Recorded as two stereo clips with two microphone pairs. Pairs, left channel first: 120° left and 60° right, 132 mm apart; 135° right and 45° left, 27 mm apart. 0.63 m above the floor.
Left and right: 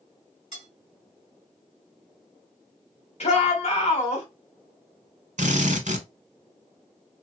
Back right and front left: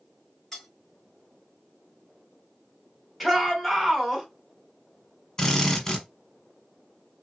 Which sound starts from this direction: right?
A drill, at 5.4 s.